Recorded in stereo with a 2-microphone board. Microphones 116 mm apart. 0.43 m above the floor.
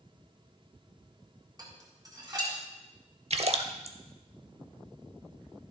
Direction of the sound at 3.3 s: 65° right (ahead or behind).